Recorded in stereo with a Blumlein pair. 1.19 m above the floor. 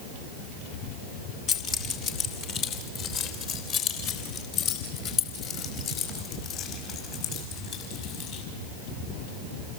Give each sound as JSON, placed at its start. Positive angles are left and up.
{"t": 1.5, "sound": "keys jangling", "azimuth_deg": 35, "distance_m": 1.9}